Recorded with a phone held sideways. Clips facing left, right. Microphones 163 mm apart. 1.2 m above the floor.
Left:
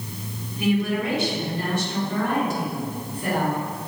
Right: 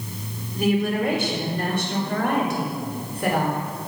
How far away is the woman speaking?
About 4 m.